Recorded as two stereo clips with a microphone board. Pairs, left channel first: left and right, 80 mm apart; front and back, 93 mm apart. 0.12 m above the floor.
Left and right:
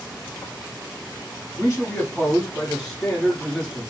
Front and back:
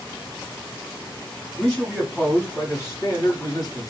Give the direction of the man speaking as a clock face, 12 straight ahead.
10 o'clock.